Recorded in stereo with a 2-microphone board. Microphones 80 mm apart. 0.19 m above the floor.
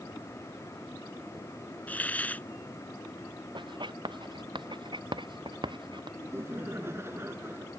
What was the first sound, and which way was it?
A hiss, 20° left (ahead or behind).